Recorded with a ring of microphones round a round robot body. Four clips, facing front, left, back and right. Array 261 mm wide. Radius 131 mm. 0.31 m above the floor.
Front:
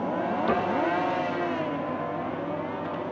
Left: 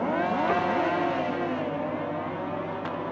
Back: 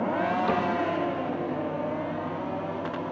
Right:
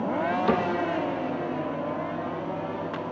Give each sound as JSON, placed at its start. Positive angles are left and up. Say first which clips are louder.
{"t": 0.5, "sound": "a cupboard door", "louder": "right 1 dB, even", "azimuth_deg": -95, "distance_m": 5.0}